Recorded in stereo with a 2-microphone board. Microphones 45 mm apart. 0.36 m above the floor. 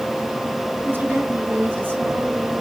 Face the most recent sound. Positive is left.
turn(degrees=-35)  # may be behind; listen again after turning